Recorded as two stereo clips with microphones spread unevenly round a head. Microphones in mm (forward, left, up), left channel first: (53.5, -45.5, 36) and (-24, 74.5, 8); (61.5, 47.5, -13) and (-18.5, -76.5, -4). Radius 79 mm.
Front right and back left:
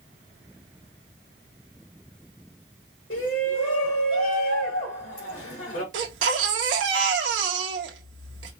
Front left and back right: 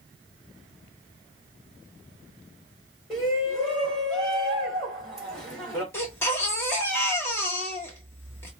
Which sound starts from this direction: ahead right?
A shout, at 3.1 s.